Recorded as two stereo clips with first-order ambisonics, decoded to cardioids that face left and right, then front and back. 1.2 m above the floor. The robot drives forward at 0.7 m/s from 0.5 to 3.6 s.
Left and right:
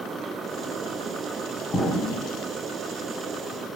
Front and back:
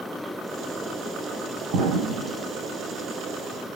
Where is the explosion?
160° left, 2 m.